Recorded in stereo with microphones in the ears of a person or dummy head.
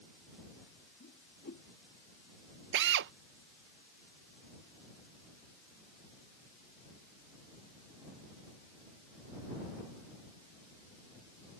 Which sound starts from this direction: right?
A drill, at 2.7 s.